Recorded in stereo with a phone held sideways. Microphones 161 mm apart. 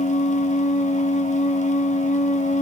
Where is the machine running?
50° left (ahead or behind), 1.3 m.